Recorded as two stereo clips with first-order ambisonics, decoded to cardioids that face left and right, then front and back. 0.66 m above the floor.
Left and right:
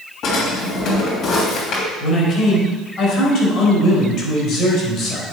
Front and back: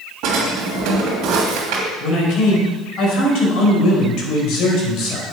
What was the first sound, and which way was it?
A drawer, 145° left.